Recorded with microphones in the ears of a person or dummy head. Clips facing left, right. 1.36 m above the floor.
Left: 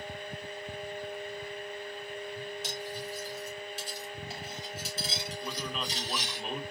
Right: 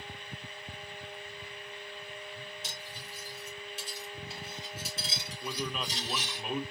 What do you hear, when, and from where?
2.6 s cutlery clinking: 55° left (ahead or behind), 3.5 m
5.4 s a man speaking: centre (ahead or behind), 0.8 m